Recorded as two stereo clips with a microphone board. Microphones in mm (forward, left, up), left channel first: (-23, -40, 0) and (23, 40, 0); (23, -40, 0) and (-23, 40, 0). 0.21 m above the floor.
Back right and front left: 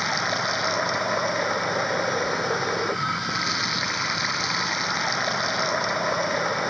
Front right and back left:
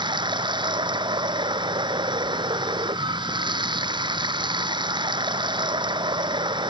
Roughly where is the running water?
Behind left.